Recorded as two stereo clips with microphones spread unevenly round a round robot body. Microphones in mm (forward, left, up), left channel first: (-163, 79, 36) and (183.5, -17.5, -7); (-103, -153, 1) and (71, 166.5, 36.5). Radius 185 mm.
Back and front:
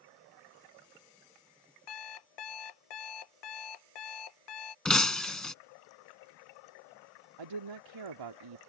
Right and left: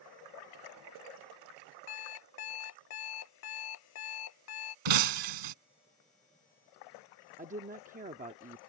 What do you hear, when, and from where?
1.9 s an alarm clock: 170° right
4.8 s breaking glass: 75° left
7.4 s a woman speaking: 10° right